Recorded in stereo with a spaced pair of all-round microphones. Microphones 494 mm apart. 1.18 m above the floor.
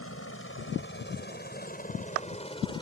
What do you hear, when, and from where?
0.0 s a helicopter: 30° left (ahead or behind); by 2.8 s 10° left (ahead or behind)